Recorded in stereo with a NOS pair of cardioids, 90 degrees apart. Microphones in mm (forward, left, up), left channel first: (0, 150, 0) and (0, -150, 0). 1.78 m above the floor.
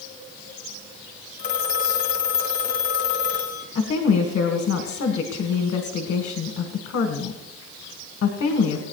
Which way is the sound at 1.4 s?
35° left.